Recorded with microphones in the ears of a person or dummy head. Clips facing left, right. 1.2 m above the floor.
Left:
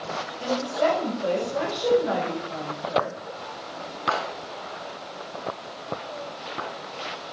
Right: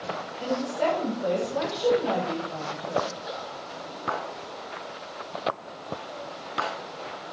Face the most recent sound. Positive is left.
turn(degrees=-5)  # may be behind; listen again after turning